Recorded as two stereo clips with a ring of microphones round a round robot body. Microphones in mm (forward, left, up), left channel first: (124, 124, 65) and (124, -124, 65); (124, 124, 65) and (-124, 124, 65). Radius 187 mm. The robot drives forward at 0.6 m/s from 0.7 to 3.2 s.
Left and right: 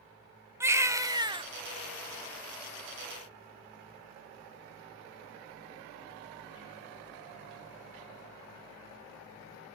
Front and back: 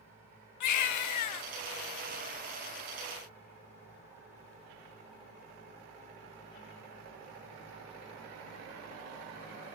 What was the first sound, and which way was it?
A baby crying, 10° right.